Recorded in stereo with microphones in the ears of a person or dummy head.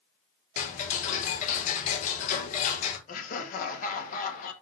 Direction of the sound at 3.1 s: 50° left (ahead or behind).